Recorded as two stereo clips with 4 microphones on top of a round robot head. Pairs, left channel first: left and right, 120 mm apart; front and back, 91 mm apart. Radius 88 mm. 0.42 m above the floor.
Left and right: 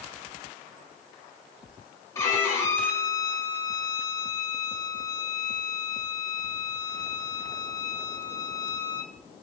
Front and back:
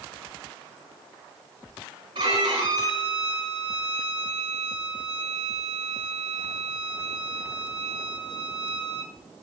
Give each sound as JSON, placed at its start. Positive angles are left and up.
{"t": 2.1, "sound": "a violin", "azimuth_deg": 155, "distance_m": 4.5}